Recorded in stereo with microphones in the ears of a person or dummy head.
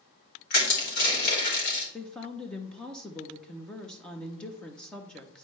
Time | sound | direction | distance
0.5 | crushing | 55° left (ahead or behind) | 4 m
1.9 | a woman speaking | 5° left (ahead or behind) | 0.7 m